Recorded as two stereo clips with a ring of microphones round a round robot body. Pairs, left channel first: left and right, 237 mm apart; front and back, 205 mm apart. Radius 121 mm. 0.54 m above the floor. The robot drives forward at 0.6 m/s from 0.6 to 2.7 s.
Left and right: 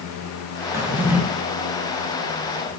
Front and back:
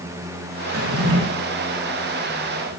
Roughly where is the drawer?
Behind.